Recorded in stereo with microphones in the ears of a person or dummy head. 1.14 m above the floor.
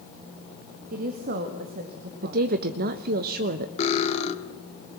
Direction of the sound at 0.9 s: 45° right (ahead or behind).